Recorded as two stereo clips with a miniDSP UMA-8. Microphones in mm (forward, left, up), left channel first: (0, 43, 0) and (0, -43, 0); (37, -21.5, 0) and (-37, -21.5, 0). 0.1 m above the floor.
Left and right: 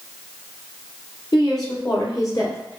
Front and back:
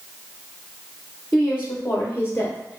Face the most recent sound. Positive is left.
turn(degrees=45)